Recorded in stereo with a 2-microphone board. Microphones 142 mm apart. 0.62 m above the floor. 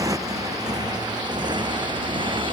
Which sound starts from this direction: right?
A motorcycle, at 0.0 s.